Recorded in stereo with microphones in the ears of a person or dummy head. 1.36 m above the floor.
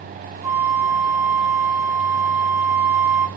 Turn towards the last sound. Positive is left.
turn(degrees=-10)  # may be behind; listen again after turning